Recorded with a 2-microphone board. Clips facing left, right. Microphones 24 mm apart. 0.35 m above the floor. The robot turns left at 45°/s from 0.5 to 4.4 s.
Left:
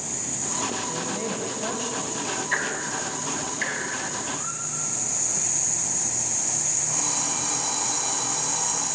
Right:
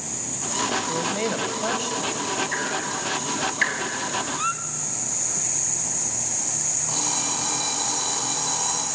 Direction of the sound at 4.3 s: 80° right.